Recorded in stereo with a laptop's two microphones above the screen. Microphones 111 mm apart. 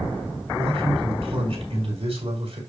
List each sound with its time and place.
0.6 s a man speaking: 75° right (ahead or behind), 3 m